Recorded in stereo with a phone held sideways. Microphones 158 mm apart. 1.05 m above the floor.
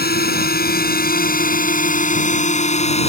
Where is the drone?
80° left; by 3.1 s 40° left (ahead or behind).